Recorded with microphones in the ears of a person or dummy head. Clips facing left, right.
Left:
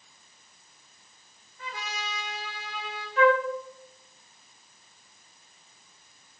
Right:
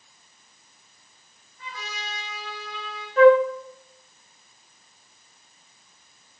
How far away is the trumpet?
About 3 m.